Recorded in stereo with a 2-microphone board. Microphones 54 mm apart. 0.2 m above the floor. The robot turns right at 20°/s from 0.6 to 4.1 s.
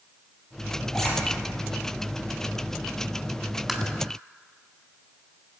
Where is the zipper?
10° left (ahead or behind), 1.7 m; by 1.1 s 5° left (ahead or behind), 1.7 m.